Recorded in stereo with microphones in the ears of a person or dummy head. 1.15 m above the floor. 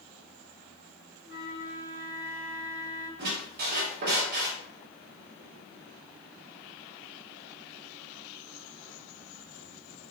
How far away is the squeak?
About 0.8 m.